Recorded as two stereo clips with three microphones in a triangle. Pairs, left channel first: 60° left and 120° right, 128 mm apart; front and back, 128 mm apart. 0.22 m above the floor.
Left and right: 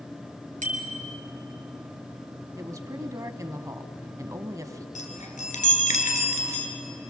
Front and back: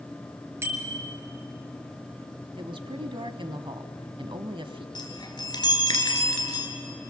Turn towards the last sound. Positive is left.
turn(degrees=55)